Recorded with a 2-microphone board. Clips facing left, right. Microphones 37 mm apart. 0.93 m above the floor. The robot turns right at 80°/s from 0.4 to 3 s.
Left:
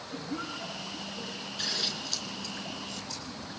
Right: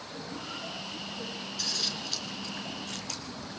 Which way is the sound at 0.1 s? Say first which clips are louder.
Left 3 dB; 70° left (ahead or behind).